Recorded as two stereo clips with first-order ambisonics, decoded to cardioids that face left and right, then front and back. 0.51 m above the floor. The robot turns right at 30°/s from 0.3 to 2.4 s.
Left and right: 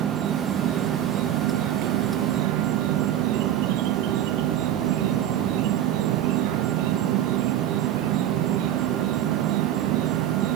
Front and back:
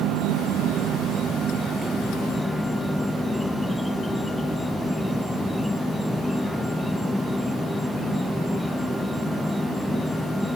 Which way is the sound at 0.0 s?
145° right.